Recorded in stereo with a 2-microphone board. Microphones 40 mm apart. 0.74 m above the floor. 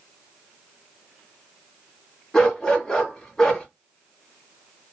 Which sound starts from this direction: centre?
A dog barking, at 2.3 s.